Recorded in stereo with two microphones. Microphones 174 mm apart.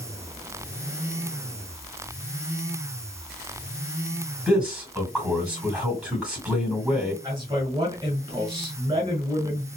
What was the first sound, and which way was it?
A man speaking, 5° right (ahead or behind).